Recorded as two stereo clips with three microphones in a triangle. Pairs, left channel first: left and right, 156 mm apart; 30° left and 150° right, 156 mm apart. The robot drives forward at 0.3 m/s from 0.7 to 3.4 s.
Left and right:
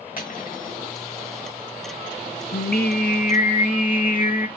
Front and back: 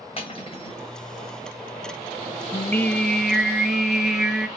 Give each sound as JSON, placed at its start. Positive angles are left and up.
{"t": 0.2, "sound": "cutlery clinking", "azimuth_deg": 75, "distance_m": 1.4}
{"t": 2.5, "sound": "singing", "azimuth_deg": 100, "distance_m": 0.6}